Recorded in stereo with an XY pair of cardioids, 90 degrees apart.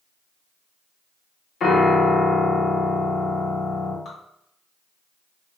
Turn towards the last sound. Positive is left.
turn(degrees=55)